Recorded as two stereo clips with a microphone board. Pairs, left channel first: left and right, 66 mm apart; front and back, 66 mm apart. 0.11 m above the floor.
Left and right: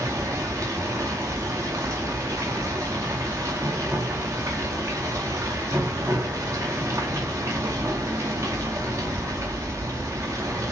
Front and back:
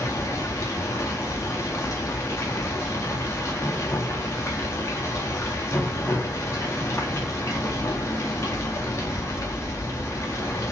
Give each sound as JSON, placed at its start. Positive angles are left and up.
{"t": 0.0, "sound": "running water", "azimuth_deg": -50, "distance_m": 1.8}